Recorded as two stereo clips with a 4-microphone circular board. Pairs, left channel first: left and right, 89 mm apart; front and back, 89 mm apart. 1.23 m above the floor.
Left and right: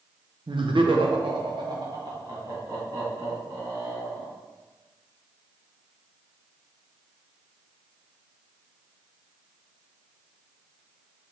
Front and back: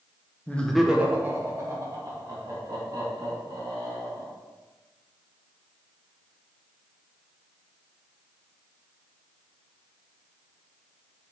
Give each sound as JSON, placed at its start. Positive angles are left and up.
{"t": 0.5, "sound": "laughter", "azimuth_deg": -70, "distance_m": 0.7}